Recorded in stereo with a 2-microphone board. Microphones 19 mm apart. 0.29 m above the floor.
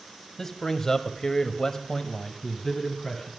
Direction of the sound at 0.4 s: 25° left (ahead or behind).